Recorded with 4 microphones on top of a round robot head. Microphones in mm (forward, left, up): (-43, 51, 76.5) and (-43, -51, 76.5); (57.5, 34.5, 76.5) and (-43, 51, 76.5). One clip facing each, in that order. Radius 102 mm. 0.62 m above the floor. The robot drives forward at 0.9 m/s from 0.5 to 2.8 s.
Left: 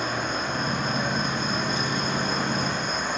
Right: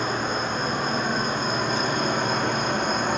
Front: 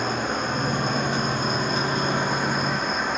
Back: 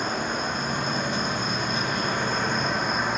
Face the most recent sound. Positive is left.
turn(degrees=-100)